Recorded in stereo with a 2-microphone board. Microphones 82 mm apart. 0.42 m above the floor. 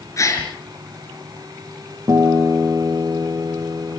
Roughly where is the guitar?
Right.